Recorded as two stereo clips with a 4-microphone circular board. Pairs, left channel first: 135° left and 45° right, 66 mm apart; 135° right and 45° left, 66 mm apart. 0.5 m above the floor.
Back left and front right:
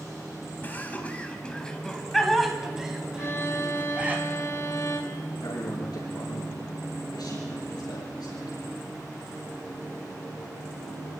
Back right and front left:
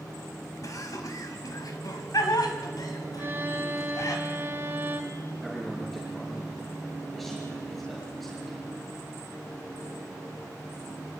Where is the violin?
95° left, 2 m.